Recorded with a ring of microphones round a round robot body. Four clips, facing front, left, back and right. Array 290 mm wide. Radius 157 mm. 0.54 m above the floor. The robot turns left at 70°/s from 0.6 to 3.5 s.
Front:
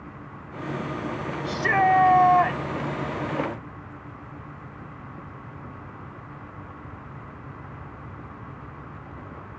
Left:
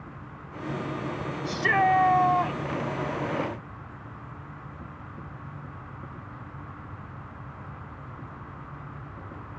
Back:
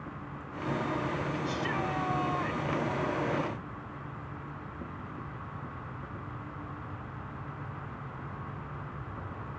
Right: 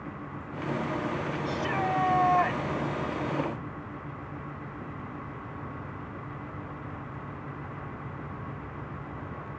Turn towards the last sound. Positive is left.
turn(degrees=-90)